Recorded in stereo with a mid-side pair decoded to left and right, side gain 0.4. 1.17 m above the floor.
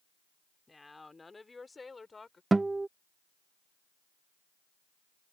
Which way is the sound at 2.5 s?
25° right.